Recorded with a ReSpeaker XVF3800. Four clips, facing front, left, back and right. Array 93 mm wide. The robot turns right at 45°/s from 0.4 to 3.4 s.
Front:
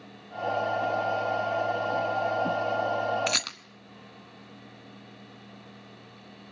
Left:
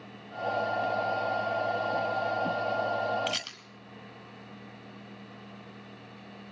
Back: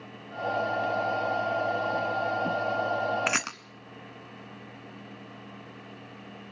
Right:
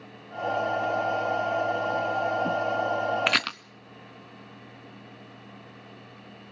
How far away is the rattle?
About 0.6 m.